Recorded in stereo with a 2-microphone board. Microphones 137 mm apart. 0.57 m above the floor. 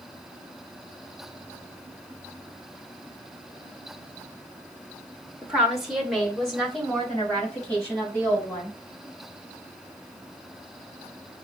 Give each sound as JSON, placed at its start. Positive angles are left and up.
{"t": 5.4, "sound": "a woman speaking", "side_deg": -10, "distance_m": 1.2}